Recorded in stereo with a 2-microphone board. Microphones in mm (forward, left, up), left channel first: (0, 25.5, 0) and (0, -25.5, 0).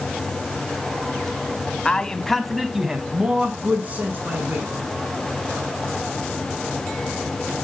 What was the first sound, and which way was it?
A man speaking, 20° left (ahead or behind).